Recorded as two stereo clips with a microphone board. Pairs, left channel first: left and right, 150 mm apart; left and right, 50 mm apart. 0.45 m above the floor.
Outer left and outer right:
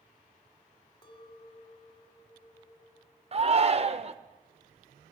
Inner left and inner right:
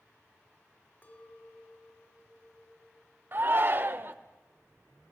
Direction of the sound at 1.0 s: 35° left (ahead or behind).